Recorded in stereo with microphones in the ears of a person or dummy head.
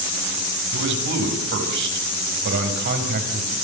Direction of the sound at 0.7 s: 65° right (ahead or behind).